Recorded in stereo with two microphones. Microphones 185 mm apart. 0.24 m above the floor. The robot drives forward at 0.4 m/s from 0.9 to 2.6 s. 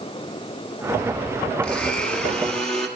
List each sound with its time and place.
1.6 s a blender: 5° left (ahead or behind), 0.9 m